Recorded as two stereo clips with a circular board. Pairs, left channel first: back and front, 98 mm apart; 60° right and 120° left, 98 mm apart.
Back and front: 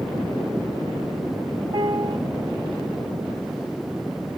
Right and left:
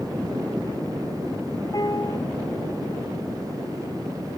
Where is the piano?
15° right, 1.0 m.